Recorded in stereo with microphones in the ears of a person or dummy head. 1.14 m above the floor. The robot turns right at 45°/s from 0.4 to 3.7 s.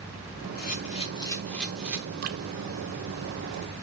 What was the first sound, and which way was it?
A camera shutter, 130° left.